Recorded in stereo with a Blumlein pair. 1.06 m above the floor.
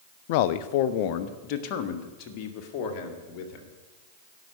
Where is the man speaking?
50° left, 0.5 m; by 3.7 s 35° left, 2.5 m.